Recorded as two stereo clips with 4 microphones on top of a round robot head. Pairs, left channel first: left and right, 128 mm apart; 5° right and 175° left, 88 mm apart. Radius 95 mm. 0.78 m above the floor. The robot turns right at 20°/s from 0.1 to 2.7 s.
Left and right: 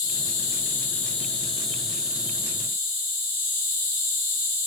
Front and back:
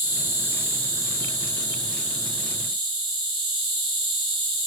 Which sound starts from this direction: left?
An insect, at 0.0 s.